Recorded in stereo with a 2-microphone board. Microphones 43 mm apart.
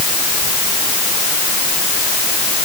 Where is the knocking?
I don't hear knocking.